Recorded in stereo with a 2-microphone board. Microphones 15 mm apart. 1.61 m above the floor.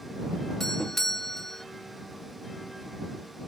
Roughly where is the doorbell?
Left.